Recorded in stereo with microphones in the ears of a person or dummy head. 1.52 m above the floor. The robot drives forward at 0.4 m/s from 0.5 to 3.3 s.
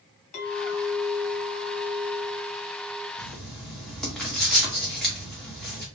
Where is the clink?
40° left (ahead or behind), 1.6 m; by 3.1 s 60° left (ahead or behind), 1.2 m.